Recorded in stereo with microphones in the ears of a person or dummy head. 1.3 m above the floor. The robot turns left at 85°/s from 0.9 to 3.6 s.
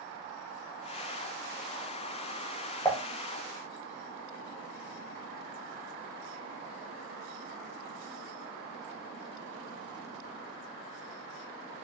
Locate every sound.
2.9 s dishes clattering: 10° left (ahead or behind), 0.7 m; by 3.0 s 20° left (ahead or behind), 0.7 m